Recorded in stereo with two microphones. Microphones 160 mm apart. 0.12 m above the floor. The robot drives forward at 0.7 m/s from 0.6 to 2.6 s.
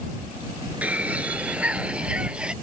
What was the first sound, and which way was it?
A bird, 10° right (ahead or behind).